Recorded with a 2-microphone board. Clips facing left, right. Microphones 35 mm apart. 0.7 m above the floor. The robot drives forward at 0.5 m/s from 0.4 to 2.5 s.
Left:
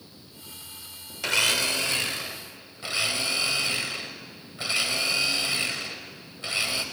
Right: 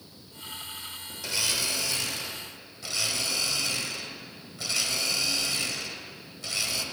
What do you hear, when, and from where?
1.2 s a blender: 60° left (ahead or behind), 0.6 m; by 6.8 s 30° left (ahead or behind), 1.0 m